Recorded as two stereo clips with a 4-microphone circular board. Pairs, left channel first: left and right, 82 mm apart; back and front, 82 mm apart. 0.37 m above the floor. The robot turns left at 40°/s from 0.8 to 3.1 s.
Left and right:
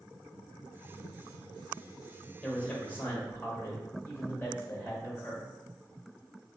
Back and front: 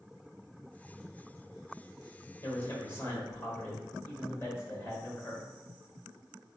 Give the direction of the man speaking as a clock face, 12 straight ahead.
6 o'clock.